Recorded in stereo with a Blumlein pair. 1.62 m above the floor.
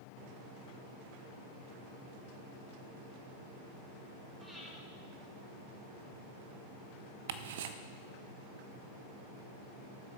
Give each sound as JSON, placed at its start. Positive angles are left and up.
{"t": 4.4, "sound": "breathing", "azimuth_deg": -10, "distance_m": 3.0}
{"t": 7.3, "sound": "ticking", "azimuth_deg": -55, "distance_m": 0.6}